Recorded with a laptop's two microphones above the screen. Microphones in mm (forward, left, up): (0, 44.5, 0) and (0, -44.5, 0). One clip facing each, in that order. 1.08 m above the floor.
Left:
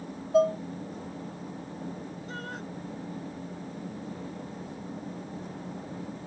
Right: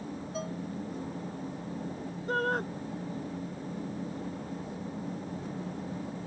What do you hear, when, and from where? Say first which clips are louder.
0.3 s dishes clattering: left 17 dB; 65° left (ahead or behind)
2.3 s a shout: right 13 dB; 50° right (ahead or behind)